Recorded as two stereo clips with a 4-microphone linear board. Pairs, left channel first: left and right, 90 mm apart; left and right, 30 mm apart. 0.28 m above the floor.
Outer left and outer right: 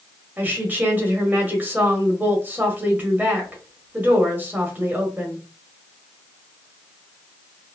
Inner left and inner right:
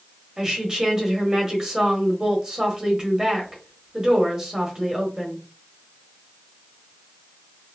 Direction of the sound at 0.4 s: 20° right (ahead or behind).